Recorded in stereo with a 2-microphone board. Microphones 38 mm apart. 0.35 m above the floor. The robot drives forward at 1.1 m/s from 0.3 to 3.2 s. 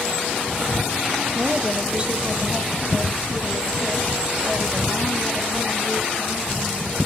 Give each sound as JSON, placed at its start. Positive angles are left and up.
{"t": 1.4, "sound": "a woman speaking", "side_deg": -30, "distance_m": 1.0}